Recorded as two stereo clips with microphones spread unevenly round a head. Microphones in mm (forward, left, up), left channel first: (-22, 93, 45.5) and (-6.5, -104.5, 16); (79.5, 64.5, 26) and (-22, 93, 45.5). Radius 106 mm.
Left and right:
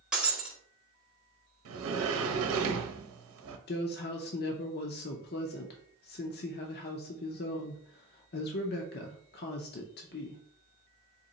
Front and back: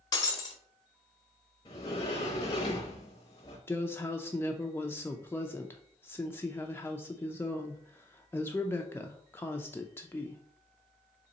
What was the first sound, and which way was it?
Breaking glass, 15° left.